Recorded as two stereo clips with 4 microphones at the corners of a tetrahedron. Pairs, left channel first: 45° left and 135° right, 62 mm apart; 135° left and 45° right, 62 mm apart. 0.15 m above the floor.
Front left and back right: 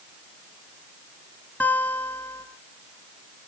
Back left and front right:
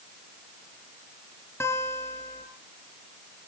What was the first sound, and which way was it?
A guitar, 100° left.